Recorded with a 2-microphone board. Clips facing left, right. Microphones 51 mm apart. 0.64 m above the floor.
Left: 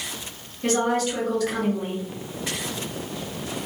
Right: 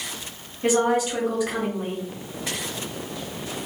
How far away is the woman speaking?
About 0.9 m.